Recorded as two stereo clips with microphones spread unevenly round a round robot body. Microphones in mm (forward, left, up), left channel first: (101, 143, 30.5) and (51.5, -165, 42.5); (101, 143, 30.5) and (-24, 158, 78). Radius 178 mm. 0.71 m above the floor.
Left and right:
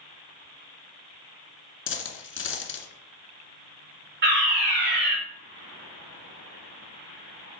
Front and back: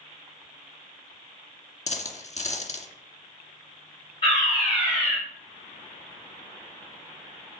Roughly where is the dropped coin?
Ahead left.